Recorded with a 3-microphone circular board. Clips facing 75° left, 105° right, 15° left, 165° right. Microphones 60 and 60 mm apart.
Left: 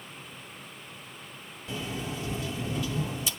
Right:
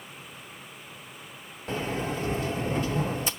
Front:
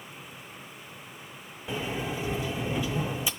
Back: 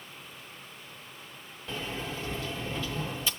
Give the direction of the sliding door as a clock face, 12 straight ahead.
2 o'clock.